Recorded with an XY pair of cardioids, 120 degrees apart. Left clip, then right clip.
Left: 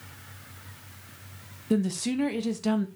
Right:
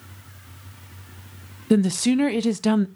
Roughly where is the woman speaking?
Ahead right.